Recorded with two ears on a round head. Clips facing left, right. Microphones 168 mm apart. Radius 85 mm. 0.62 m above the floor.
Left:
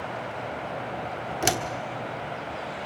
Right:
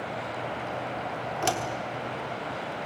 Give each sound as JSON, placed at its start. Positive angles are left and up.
{"t": 1.4, "sound": "a door slam", "side_deg": 20, "distance_m": 1.1}